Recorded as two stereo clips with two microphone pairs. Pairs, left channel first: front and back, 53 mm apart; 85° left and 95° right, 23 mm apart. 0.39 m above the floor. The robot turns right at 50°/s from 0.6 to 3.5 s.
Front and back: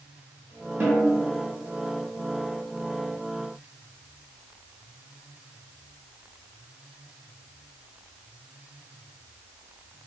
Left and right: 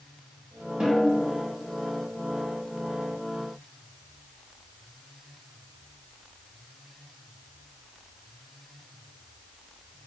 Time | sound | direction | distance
0.8 | a snare drum | 150° right | 2.0 m